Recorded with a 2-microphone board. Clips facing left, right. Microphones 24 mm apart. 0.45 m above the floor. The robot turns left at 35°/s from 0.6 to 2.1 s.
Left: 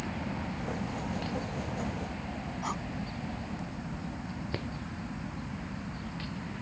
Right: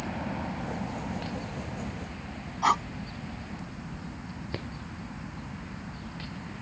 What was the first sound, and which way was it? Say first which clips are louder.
A helicopter: right 2 dB; 155° right.